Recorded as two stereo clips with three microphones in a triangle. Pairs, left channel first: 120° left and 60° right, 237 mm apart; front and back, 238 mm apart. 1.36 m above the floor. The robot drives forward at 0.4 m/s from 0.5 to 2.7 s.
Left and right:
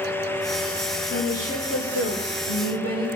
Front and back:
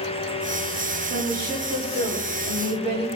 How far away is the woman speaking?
About 6 m.